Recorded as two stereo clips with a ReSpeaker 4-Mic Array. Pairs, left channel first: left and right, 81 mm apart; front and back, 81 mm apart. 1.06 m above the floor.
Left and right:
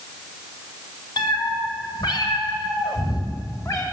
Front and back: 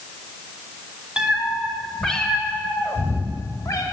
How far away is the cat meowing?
About 1.5 m.